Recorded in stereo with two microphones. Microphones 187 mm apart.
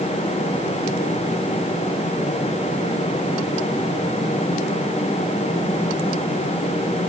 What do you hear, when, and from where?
Only background noise.